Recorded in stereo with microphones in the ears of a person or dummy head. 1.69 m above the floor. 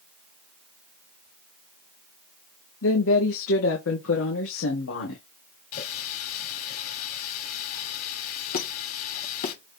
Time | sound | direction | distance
2.8 | a woman speaking | 80° left | 2.5 m
5.7 | a running tap | 45° left (ahead or behind) | 3 m
8.5 | a squeak | 45° left (ahead or behind) | 1.3 m